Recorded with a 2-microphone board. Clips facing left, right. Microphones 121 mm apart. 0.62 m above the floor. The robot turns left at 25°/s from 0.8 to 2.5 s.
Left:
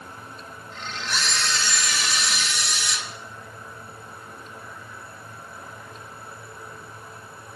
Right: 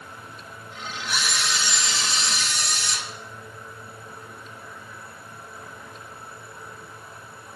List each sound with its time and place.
1.1 s a camera shutter: 5° right, 1.6 m; by 3.0 s 40° right, 1.6 m